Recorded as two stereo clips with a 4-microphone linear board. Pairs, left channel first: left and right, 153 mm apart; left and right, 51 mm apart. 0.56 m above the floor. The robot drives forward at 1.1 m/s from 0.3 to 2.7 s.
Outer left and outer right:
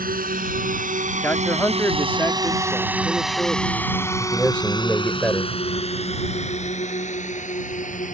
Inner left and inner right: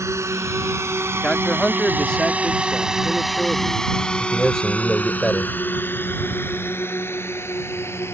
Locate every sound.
0.0 s a drone: 70° right (ahead or behind); by 8.1 s 55° left (ahead or behind)
1.2 s a man speaking: 10° left (ahead or behind)
4.2 s a man speaking: 10° left (ahead or behind)